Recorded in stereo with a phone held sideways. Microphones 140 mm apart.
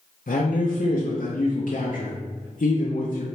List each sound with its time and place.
0.3 s a man speaking: 70° left (ahead or behind), 0.6 m